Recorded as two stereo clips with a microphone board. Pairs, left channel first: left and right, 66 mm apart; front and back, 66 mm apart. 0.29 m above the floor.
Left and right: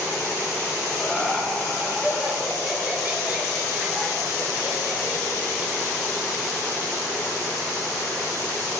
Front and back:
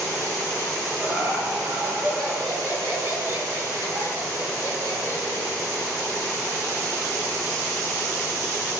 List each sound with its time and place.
1.0 s laughter: 170° left, 1.8 m; by 5.7 s 155° right, 4.5 m